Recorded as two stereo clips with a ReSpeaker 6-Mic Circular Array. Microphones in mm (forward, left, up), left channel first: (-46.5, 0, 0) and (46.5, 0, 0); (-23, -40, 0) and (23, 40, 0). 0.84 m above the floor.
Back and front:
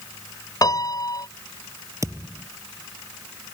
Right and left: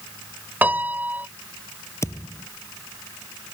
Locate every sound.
0.6 s a piano: 130° left
2.0 s a thud: 60° right